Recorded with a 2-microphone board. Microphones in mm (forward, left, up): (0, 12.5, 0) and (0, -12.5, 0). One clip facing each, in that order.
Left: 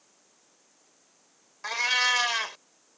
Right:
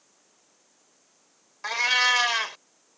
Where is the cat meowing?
15° right (ahead or behind).